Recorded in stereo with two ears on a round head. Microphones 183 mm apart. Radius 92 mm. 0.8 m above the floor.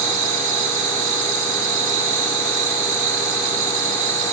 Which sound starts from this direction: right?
An insect, at 0.0 s.